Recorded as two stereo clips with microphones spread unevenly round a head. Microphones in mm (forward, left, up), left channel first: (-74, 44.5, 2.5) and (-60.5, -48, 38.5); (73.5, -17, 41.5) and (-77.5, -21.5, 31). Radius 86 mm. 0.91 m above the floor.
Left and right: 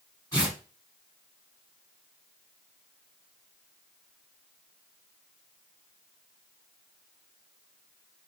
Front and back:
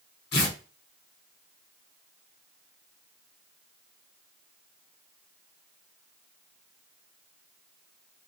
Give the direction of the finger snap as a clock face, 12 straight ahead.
No finger snap in this recording.